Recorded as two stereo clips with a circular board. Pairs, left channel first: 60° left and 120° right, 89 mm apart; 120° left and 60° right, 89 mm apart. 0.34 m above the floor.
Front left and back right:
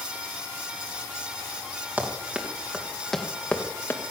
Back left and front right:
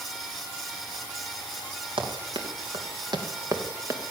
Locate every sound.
2.0 s running footsteps: 50° right, 3.5 m; by 4.0 s straight ahead, 2.5 m